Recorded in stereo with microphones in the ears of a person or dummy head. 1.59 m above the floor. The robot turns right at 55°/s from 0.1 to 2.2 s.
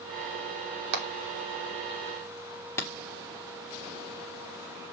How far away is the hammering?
About 1.4 m.